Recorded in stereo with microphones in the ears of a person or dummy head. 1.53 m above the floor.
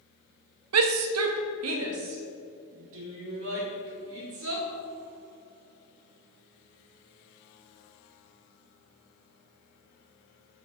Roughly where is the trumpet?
No trumpet in this recording.